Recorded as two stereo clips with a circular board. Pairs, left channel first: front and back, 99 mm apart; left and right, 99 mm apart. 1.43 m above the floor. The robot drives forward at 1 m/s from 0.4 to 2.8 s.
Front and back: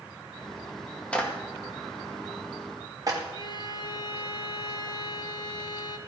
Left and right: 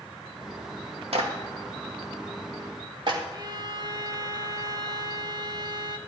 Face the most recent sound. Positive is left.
turn(degrees=-45)